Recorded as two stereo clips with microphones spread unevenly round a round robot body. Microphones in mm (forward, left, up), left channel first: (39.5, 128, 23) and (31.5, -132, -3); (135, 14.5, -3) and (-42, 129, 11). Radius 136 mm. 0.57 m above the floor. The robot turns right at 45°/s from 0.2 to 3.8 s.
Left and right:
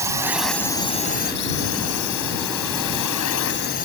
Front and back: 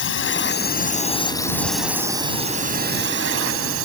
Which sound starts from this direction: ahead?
A drone, at 0.0 s.